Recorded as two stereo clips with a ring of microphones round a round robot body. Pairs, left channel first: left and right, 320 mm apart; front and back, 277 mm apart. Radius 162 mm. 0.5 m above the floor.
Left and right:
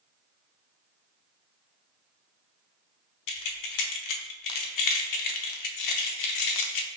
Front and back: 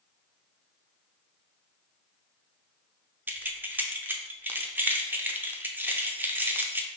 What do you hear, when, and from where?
3.3 s keys jangling: 95° left, 0.7 m